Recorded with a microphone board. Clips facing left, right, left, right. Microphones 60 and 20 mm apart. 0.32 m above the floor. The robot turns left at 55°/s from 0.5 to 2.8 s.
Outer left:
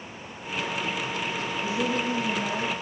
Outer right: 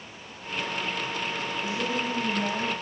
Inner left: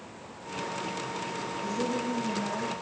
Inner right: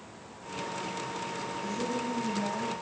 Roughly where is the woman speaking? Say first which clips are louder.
Outer left 3 dB, inner left 3 dB; ahead.